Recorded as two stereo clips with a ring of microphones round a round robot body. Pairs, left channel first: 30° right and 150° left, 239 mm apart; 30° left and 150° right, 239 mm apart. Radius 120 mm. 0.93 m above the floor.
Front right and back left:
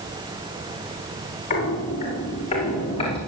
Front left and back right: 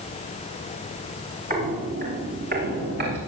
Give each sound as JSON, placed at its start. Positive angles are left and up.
{"t": 1.5, "sound": "footsteps", "azimuth_deg": -90, "distance_m": 9.0}